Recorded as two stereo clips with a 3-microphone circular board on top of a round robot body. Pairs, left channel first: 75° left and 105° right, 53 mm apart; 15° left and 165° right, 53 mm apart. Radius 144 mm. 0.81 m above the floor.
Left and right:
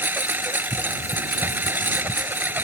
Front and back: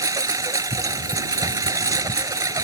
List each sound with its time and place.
0.0 s a lawn mower: 160° right